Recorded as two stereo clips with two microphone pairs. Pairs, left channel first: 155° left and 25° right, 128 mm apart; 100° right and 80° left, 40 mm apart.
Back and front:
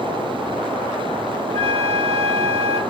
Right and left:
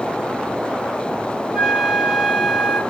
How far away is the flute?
About 0.9 m.